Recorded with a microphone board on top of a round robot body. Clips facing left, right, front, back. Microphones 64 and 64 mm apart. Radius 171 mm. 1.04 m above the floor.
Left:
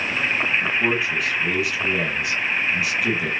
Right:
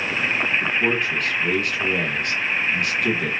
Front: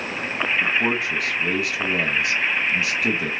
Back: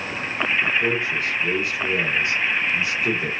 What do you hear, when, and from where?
0.6 s a man speaking: 5° left, 1.2 m